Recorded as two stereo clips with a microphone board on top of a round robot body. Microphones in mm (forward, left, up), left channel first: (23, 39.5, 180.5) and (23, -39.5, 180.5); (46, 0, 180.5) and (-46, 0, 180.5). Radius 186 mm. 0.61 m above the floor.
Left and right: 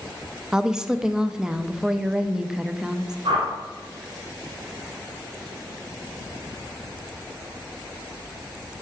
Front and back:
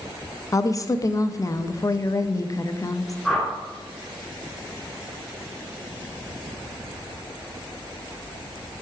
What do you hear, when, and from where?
0.5 s a woman speaking: 15° right, 0.6 m
3.2 s a whoosh: 90° right, 2.5 m